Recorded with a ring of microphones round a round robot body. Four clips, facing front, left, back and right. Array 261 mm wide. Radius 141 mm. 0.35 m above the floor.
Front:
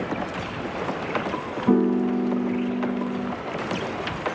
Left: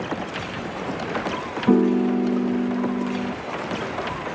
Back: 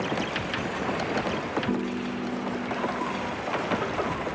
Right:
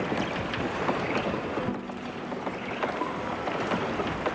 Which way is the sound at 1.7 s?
60° left.